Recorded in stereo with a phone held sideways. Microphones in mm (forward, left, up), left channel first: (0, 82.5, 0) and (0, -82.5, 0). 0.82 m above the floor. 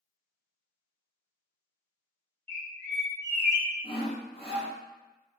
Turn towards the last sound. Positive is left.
turn(degrees=35)  # may be behind; listen again after turning